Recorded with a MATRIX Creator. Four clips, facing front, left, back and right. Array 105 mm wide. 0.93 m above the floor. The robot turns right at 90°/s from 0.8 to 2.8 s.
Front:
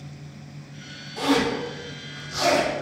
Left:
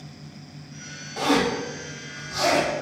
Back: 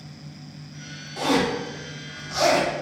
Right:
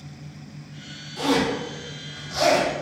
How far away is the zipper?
About 1.8 m.